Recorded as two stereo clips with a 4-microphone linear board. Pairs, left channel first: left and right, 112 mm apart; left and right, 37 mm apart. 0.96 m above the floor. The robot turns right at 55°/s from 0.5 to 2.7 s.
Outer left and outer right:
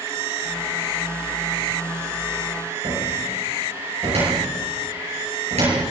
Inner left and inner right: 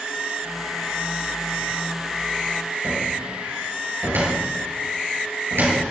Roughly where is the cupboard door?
Right.